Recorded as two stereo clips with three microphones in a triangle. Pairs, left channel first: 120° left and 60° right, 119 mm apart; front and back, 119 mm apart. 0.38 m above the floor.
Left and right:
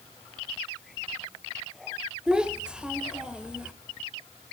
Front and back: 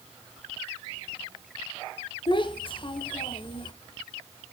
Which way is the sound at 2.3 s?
20° left.